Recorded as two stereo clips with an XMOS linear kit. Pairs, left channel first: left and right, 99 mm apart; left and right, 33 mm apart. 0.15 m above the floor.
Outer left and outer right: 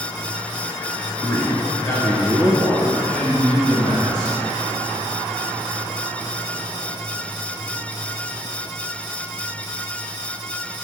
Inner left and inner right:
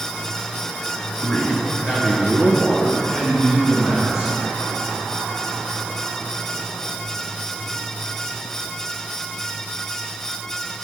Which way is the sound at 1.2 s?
30° left (ahead or behind).